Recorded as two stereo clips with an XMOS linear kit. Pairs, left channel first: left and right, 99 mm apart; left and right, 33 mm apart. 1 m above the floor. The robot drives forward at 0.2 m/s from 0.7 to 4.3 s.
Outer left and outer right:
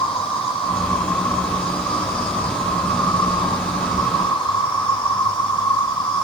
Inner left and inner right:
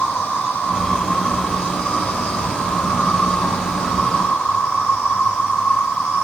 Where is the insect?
85° left, 3 m; by 6.2 s 80° left, 3 m.